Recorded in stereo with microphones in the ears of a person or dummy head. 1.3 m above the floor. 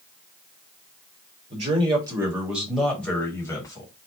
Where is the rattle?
No rattle in this recording.